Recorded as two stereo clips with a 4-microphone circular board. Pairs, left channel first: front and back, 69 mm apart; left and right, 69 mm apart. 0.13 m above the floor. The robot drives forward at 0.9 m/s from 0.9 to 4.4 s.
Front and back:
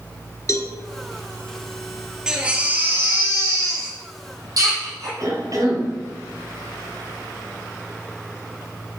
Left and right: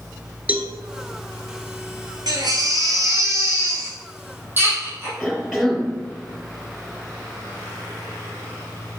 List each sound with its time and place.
0.5 s a cowbell: 25° right, 0.8 m
2.3 s a baby crying: 100° right, 1.4 m; by 5.1 s 150° right, 2.5 m
5.2 s a cough: 175° right, 2.5 m